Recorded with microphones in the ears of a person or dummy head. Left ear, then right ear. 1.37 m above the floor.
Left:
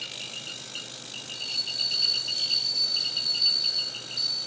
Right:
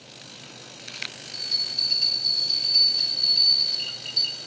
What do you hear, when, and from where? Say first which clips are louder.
1.3 s a bell: right 4 dB; 65° right (ahead or behind), 4.5 m